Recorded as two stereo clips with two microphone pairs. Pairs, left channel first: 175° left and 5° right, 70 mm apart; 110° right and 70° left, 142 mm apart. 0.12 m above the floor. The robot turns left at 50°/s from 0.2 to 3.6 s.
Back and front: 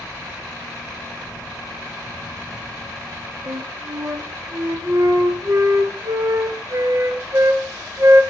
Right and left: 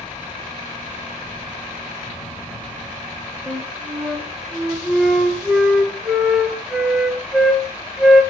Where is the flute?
10° right, 1.9 m; by 8.2 s 15° right, 1.9 m.